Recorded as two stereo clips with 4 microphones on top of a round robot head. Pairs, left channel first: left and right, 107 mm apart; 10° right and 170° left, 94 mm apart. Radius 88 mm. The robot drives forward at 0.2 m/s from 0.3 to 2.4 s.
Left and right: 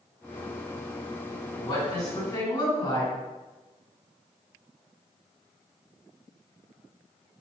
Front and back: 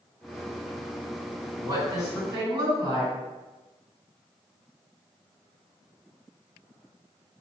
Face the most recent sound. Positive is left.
turn(degrees=140)